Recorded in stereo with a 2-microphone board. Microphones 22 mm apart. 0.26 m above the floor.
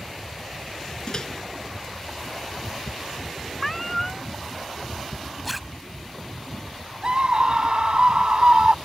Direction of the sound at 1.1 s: 40° left (ahead or behind).